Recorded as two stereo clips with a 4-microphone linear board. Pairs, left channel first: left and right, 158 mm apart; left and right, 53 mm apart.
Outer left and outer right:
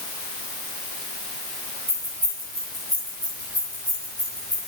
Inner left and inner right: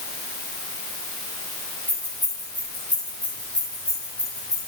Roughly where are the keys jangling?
Right.